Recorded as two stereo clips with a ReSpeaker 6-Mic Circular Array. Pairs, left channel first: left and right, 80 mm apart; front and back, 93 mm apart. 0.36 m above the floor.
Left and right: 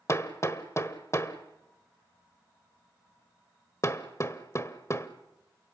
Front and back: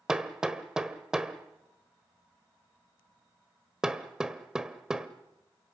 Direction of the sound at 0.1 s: 100° left.